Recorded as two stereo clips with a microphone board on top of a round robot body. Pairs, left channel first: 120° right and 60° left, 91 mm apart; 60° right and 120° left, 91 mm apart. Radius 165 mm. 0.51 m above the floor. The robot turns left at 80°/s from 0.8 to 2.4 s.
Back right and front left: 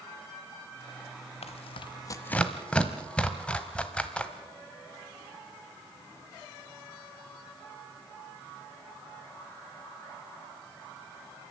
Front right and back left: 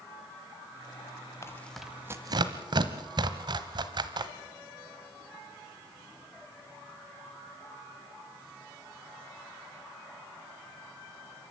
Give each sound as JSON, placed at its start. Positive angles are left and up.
{"t": 1.4, "sound": "tearing paper", "azimuth_deg": -120, "distance_m": 1.0}